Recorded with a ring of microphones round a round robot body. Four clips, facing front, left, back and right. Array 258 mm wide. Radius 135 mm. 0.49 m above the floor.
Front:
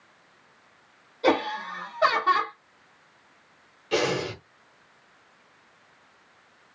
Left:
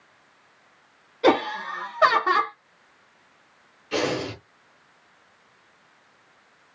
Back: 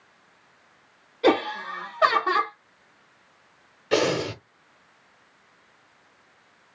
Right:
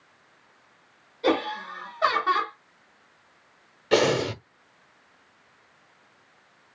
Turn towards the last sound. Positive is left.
turn(degrees=-115)